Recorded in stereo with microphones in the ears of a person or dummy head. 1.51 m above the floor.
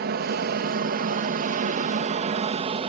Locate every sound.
0.0 s an aircraft: 55° right (ahead or behind); by 2.9 s 30° right (ahead or behind)